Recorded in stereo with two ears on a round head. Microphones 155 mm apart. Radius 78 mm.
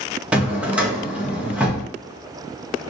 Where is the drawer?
10° right (ahead or behind), 0.8 m.